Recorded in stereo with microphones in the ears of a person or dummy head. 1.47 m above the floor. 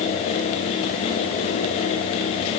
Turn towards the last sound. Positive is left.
No sound to turn to.